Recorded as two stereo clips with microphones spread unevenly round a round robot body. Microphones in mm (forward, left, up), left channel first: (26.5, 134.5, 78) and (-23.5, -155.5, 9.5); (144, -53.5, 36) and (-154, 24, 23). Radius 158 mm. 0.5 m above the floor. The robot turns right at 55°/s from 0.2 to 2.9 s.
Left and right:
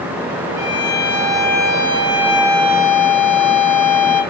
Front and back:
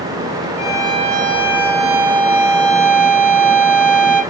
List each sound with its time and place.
0.6 s a violin: 70° left, 4 m; by 4.2 s 160° right, 4 m